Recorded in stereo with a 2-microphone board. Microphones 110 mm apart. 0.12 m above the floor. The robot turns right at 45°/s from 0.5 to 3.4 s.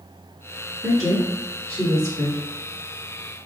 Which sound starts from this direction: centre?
A woman speaking, at 0.8 s.